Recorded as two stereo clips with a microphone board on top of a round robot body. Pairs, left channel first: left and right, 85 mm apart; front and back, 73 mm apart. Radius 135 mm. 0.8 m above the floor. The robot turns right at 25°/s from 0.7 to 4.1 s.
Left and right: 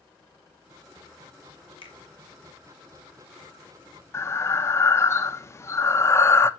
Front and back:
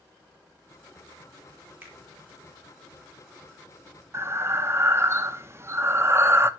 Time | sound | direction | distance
1.8 | a finger snap | 110° left | 2.5 m
4.1 | breathing | 140° left | 0.9 m